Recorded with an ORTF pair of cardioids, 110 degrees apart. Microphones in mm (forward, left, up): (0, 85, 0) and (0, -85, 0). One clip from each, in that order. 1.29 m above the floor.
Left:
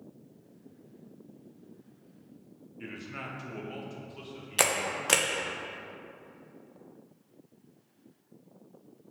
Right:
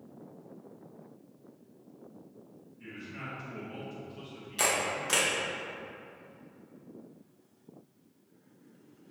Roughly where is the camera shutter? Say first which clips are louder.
Left 1 dB; ahead left.